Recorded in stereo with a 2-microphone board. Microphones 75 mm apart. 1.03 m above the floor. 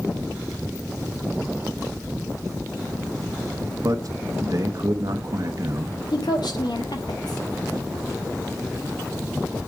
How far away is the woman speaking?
About 2 m.